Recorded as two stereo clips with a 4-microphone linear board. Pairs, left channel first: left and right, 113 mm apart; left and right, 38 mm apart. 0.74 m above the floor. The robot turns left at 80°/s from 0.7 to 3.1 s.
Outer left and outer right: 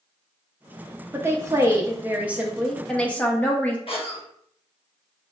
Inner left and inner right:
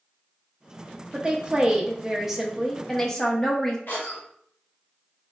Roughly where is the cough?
Left.